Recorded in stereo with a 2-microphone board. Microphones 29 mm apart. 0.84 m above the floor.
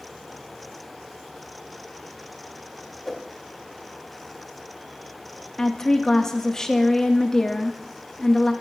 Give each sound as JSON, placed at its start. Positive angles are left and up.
{"t": 3.0, "sound": "a whoosh", "side_deg": 0, "distance_m": 2.0}
{"t": 5.6, "sound": "a woman speaking", "side_deg": 20, "distance_m": 1.1}